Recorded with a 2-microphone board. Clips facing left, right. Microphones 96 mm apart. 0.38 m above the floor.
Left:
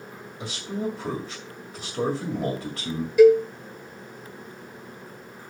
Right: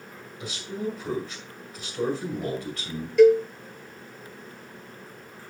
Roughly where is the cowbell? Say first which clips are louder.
Left 2 dB; centre.